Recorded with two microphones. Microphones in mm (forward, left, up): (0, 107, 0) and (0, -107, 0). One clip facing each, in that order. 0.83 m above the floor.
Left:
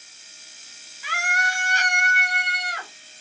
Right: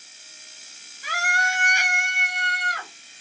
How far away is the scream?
About 0.9 m.